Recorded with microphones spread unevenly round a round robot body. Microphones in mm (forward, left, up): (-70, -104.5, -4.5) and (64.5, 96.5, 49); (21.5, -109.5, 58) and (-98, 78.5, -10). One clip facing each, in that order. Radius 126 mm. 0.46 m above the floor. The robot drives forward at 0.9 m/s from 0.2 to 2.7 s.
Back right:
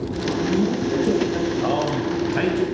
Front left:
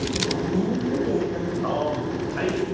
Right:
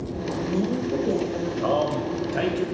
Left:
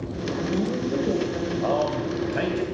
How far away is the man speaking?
About 1.8 m.